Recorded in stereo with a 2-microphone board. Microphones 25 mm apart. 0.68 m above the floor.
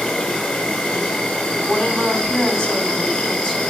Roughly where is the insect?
Left.